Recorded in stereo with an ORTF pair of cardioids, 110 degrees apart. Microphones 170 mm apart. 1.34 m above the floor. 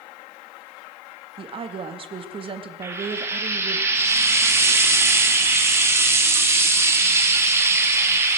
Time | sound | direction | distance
1.4 | a woman speaking | 35° right | 1.7 m
2.8 | frying | 15° right | 2 m